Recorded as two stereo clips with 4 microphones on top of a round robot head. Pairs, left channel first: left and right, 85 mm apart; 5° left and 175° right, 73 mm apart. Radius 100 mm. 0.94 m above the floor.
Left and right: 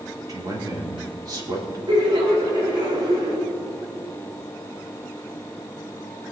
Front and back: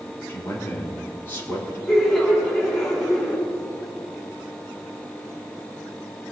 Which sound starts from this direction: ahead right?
A man speaking, at 0.3 s.